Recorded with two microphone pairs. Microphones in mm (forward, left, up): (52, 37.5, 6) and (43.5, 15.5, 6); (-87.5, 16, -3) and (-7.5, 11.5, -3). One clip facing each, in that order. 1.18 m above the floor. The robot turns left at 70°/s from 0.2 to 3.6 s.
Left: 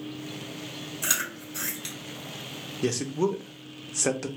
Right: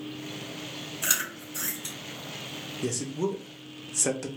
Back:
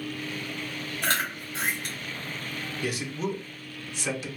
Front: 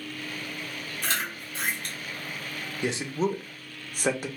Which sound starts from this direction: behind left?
Chewing, at 1.0 s.